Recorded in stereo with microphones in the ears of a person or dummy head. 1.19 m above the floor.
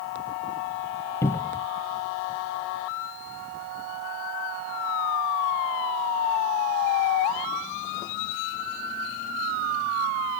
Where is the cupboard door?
15° left (ahead or behind).